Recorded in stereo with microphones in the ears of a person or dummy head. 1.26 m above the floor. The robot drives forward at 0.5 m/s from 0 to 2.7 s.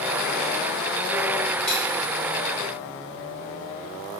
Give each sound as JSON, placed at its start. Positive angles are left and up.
{"t": 1.7, "sound": "a dropped coin", "side_deg": 5, "distance_m": 1.6}